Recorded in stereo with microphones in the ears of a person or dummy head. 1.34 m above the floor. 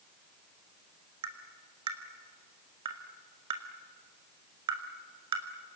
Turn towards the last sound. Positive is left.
turn(degrees=-30)  # may be behind; listen again after turning